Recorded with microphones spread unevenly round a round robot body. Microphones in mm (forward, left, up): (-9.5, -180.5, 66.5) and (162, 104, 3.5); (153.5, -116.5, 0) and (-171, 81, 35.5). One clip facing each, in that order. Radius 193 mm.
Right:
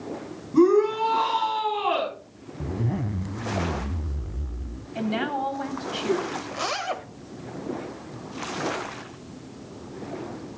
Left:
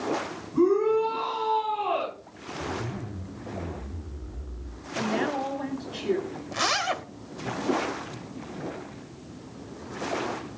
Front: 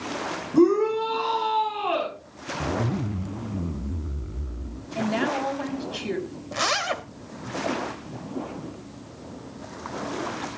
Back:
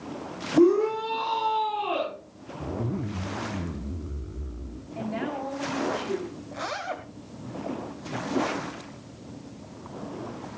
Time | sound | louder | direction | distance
0.5 | a shout | right 3 dB, front 1 dB | 100° right | 7 m
2.6 | a zipper | right 5 dB, front 3 dB | 105° right | 0.9 m
5.0 | a woman speaking | even, front 5 dB | 50° right | 4.5 m
6.5 | a zipper | even, front 5 dB | 5° left | 1.3 m